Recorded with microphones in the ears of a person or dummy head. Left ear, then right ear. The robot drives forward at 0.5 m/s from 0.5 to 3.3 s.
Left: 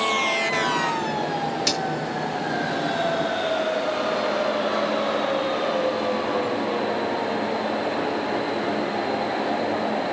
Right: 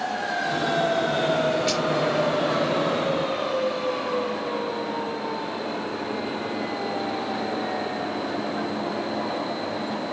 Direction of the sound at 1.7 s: 80° left.